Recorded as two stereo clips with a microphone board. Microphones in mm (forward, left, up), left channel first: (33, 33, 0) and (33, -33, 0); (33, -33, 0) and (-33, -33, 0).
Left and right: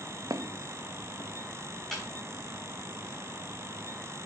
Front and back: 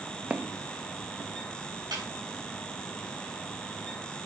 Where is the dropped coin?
I don't hear a dropped coin.